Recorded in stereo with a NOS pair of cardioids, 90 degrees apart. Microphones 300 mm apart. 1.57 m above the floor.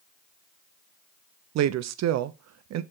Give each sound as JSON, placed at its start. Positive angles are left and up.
{"t": 1.6, "sound": "a woman speaking", "azimuth_deg": -60, "distance_m": 0.5}